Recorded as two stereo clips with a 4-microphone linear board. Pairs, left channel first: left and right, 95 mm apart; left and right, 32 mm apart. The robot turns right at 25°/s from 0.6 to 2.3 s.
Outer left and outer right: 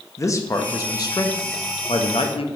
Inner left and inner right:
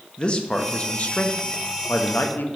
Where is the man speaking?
35° left, 0.8 m; by 2.5 s 75° left, 0.8 m.